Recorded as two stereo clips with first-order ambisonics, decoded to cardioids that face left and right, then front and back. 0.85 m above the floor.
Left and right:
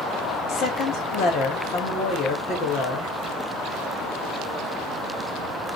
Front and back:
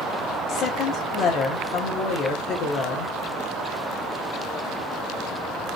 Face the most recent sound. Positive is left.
turn(degrees=45)